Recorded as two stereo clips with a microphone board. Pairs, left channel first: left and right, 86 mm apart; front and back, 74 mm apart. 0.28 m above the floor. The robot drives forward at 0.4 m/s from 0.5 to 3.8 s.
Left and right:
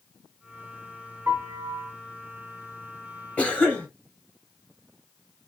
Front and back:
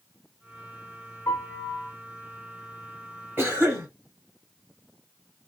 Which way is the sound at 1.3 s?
40° right.